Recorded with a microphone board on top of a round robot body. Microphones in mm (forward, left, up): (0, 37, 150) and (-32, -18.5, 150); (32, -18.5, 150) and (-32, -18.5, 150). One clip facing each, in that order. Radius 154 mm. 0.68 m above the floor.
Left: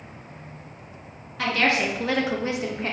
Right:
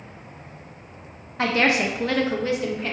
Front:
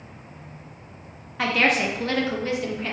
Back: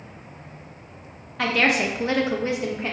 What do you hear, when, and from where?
1.4 s a woman speaking: 85° right, 0.6 m; by 2.9 s 115° left, 0.8 m